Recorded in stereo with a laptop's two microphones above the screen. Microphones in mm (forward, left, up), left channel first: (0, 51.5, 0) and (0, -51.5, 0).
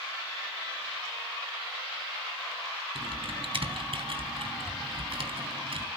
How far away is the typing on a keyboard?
About 3.5 m.